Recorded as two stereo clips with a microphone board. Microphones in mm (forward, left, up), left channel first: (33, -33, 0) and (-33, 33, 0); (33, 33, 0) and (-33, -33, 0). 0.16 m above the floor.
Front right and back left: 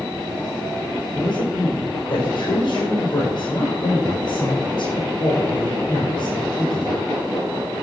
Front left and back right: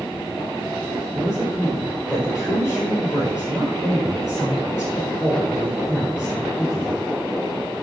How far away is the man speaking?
About 4 m.